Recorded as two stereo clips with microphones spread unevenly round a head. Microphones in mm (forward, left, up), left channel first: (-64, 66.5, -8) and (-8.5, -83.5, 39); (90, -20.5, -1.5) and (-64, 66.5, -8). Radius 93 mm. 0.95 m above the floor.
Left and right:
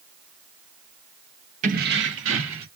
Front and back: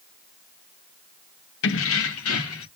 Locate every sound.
1.6 s keys jangling: 15° right, 0.6 m; by 2.7 s 50° right, 1.4 m